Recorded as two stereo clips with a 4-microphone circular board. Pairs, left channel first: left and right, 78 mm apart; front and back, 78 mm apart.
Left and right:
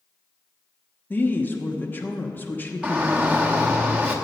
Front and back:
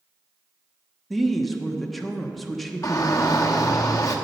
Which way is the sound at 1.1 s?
85° left.